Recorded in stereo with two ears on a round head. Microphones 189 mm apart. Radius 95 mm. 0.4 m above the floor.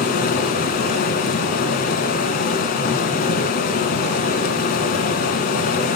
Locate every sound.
0.0 s running water: 45° left (ahead or behind), 1.5 m